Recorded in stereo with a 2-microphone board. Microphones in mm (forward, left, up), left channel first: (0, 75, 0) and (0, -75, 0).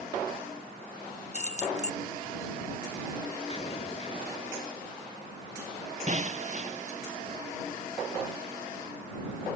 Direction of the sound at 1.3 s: 45° left (ahead or behind).